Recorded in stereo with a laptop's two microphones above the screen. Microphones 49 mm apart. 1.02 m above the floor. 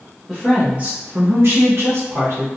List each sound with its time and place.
0.3 s a woman speaking: 10° right (ahead or behind), 0.6 m; by 2.5 s 60° right (ahead or behind), 1.1 m